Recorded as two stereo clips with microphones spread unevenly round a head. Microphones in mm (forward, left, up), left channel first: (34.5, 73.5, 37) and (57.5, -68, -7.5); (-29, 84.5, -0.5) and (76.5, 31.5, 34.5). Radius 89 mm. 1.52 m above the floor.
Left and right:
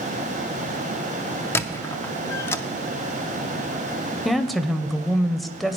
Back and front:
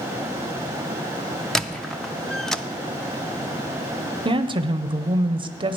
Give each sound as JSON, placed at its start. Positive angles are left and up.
{"t": 1.6, "sound": "a squeak", "azimuth_deg": 55, "distance_m": 0.6}
{"t": 4.2, "sound": "a woman speaking", "azimuth_deg": 15, "distance_m": 0.7}